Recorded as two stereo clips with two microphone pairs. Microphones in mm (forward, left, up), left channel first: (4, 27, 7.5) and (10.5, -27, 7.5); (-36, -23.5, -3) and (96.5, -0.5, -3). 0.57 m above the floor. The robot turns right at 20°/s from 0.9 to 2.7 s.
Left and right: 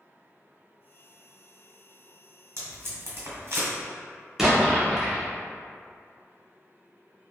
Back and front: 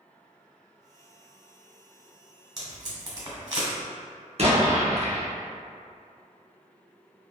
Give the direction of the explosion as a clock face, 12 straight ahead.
12 o'clock.